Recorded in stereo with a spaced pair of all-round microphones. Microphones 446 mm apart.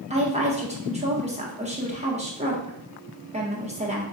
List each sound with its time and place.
0.1 s a woman speaking: 15° right (ahead or behind), 1.0 m